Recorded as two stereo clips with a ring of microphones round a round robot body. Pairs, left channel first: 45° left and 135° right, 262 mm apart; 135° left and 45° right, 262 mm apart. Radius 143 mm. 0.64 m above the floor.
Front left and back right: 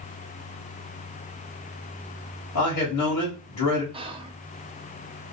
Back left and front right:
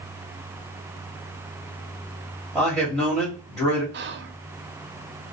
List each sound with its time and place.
2.5 s a man speaking: 45° left, 1.3 m
3.9 s whispering: 70° right, 0.6 m